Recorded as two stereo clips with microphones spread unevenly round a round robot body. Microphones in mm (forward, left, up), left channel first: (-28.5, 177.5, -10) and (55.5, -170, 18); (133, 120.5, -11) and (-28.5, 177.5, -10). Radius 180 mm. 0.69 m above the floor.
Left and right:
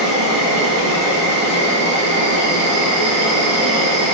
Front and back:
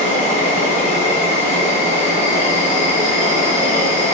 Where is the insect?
65° right, 1.8 m.